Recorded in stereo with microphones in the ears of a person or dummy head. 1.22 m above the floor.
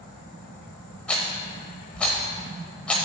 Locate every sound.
1.1 s a rattle: 5° left (ahead or behind), 1.0 m